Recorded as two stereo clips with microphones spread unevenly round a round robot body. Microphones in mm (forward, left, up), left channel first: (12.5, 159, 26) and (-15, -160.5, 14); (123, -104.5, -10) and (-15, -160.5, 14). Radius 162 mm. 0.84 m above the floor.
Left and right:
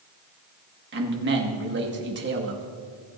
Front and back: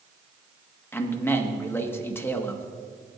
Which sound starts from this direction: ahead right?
A man speaking, at 0.9 s.